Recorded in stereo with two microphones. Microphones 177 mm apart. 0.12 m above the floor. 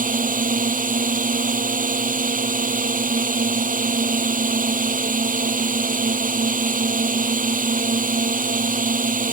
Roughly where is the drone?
Right.